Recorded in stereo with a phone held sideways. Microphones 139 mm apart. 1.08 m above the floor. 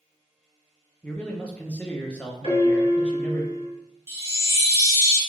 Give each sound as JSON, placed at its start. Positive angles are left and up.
{"t": 1.0, "sound": "a man speaking", "side_deg": 10, "distance_m": 0.6}
{"t": 2.4, "sound": "a piano", "side_deg": 55, "distance_m": 1.8}
{"t": 4.1, "sound": "a chime", "side_deg": -20, "distance_m": 0.7}